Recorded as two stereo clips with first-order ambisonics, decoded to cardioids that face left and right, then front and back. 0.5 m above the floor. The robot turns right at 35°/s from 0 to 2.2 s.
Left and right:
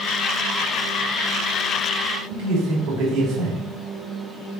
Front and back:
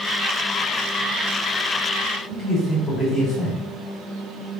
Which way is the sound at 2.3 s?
55° right.